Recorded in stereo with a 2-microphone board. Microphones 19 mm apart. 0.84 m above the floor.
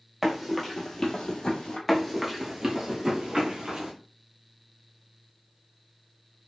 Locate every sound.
0.2 s running footsteps: 15° right (ahead or behind), 0.9 m; by 1.8 s 45° left (ahead or behind), 1.3 m
1.9 s running footsteps: 5° left (ahead or behind), 0.8 m; by 3.9 s 45° right (ahead or behind), 1.5 m